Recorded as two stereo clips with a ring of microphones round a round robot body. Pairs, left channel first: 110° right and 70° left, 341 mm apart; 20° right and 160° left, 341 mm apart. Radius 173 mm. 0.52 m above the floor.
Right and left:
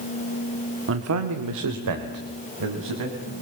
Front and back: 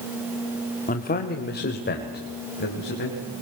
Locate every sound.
0.9 s a man speaking: 35° left, 1.2 m; by 3.2 s 40° left, 4 m